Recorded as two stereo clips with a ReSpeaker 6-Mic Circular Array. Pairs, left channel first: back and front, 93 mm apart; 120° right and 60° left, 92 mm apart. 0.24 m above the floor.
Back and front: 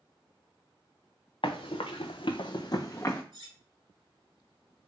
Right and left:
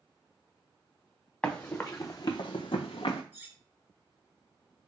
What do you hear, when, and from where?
1.4 s running footsteps: 165° left, 0.9 m; by 3.2 s 115° right, 0.8 m
3.3 s cutlery clinking: 5° right, 0.9 m